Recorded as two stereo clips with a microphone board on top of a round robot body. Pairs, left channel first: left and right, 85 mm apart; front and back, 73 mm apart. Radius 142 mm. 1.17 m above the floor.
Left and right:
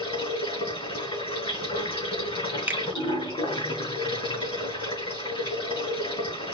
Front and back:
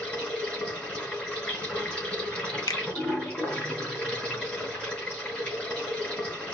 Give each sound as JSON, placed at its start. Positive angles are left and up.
{"t": 0.0, "sound": "running water", "azimuth_deg": 75, "distance_m": 3.5}
{"t": 2.7, "sound": "a finger snap", "azimuth_deg": -20, "distance_m": 0.7}